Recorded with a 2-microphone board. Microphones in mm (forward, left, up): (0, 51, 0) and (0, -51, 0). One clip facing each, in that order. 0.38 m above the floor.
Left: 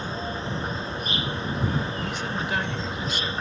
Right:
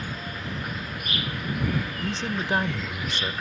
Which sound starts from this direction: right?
A man speaking, at 2.0 s.